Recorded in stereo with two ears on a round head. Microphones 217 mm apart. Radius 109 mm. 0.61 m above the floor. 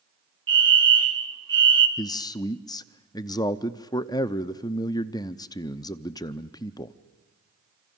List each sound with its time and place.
0.5 s a fire alarm: 20° right (ahead or behind), 2.0 m
2.0 s a man speaking: 15° left (ahead or behind), 0.6 m